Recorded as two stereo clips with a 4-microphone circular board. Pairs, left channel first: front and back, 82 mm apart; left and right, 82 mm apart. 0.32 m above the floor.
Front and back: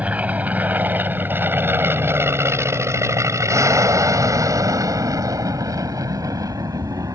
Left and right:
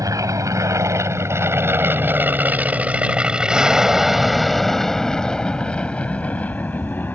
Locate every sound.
0.0 s an aircraft: 115° right; by 7.2 s 150° left